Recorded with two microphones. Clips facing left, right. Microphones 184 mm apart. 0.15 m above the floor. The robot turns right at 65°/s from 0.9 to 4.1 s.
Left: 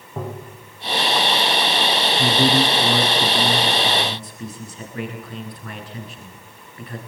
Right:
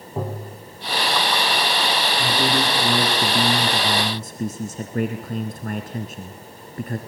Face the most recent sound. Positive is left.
turn(degrees=-105)